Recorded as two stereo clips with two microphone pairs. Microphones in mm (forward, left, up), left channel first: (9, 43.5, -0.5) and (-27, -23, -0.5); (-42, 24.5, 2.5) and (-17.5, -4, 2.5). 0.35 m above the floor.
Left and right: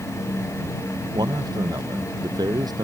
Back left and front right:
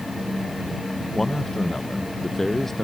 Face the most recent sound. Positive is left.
turn(degrees=-145)